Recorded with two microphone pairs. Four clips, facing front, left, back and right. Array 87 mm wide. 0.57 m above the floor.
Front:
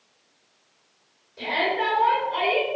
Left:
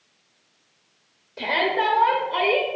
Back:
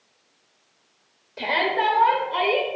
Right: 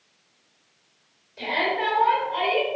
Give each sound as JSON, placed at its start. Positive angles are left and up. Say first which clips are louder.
{"t": 1.4, "sound": "a shout", "louder": "left 3 dB, back 2 dB", "azimuth_deg": 150, "distance_m": 1.6}